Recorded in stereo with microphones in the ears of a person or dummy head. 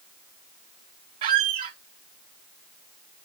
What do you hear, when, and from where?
1.2 s a squeak: 35° right (ahead or behind), 0.5 m